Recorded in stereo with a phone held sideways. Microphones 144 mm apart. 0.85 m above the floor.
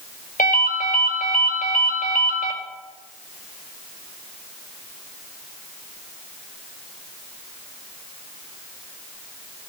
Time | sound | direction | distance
0.4 | a ringtone | 85° left | 1.9 m